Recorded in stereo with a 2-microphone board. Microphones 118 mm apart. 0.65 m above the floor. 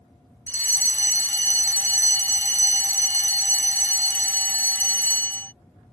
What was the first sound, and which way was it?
A fire alarm, 20° left (ahead or behind).